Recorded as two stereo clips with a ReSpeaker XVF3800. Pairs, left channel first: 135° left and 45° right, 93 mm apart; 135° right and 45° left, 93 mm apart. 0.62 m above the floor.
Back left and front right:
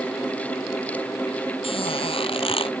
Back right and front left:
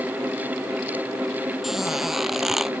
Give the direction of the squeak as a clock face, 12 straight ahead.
8 o'clock.